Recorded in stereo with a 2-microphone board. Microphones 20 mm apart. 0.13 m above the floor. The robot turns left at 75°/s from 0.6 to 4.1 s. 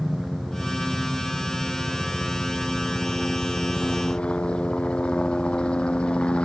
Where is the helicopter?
10° right; by 6.5 s 85° left.